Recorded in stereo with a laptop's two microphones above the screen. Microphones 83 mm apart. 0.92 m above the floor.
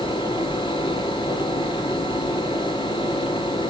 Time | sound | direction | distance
0.0 | a fan | 80° left | 2.5 m